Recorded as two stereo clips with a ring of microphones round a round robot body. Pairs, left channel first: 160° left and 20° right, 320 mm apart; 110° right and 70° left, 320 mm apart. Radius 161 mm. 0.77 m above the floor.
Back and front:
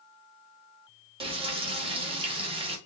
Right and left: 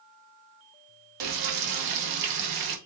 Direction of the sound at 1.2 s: 50° left.